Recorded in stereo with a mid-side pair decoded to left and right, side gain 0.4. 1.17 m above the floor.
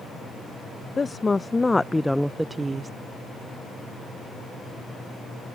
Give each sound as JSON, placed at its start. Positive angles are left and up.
{"t": 1.0, "sound": "a woman speaking", "azimuth_deg": 30}